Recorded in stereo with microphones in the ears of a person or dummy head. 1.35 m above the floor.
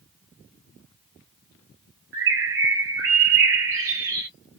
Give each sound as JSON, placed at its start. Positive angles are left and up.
{"t": 2.1, "sound": "a bird", "side_deg": -65, "distance_m": 0.9}